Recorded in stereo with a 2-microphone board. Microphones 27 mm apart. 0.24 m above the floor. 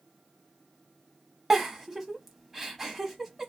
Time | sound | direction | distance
1.5 | a giggle | 10° right (ahead or behind) | 0.6 m